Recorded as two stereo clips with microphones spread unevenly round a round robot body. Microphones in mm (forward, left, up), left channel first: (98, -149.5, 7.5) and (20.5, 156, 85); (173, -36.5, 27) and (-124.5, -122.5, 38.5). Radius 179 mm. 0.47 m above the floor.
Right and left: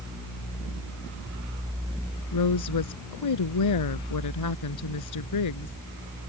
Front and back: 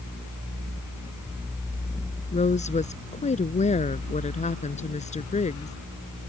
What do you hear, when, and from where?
2.3 s a woman speaking: 50° right